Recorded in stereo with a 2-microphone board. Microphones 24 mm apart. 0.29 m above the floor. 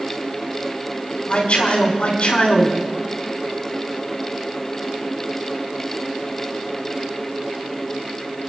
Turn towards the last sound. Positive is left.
turn(degrees=60)  # may be behind; listen again after turning